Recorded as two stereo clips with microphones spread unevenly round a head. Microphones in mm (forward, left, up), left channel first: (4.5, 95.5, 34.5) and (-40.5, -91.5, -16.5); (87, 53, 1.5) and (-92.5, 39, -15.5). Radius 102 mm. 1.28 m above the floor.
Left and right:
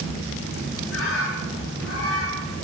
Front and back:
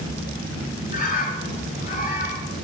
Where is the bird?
50° left, 4.5 m.